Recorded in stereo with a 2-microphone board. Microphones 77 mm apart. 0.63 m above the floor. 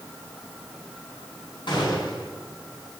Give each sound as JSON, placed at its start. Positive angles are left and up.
{"t": 1.7, "sound": "a gunshot", "side_deg": 80, "distance_m": 6.5}